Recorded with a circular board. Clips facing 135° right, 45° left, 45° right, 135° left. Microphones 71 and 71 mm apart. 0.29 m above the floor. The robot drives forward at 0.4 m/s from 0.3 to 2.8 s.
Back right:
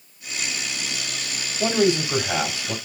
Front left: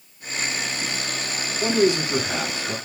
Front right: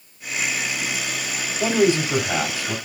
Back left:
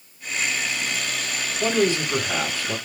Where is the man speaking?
100° right, 1.6 m; by 2.8 s 120° right, 1.7 m.